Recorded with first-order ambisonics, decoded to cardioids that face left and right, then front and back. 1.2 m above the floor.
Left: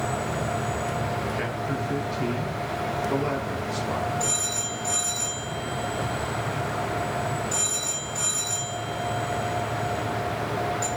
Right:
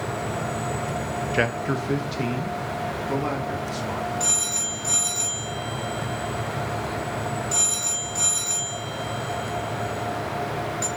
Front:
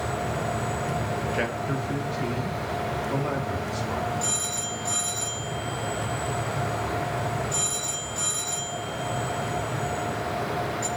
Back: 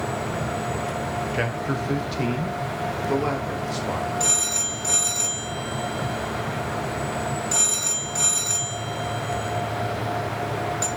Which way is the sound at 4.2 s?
165° right.